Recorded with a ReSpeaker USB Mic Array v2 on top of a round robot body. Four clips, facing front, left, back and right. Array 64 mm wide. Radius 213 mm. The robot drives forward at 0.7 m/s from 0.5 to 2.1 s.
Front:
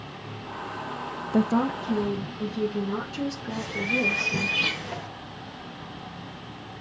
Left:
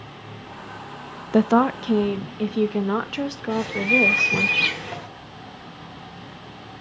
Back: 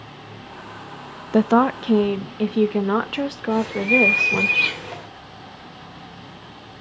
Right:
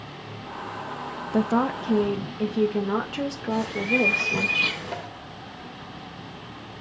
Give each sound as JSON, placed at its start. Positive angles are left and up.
{"t": 1.3, "sound": "a woman speaking", "azimuth_deg": 135, "distance_m": 0.5}
{"t": 3.5, "sound": "a bird", "azimuth_deg": 95, "distance_m": 7.0}